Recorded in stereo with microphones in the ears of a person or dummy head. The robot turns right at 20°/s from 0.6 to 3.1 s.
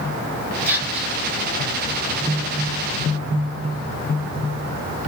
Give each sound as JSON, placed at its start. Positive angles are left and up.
{"t": 0.7, "sound": "whispering", "side_deg": -10, "distance_m": 1.2}